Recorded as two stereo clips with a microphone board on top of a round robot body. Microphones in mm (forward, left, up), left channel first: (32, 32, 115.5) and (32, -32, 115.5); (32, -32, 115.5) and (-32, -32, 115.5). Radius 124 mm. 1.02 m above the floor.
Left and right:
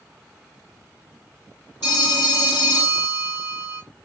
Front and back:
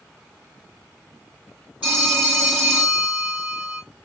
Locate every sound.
1.8 s a phone ringing: 105° left, 2.5 m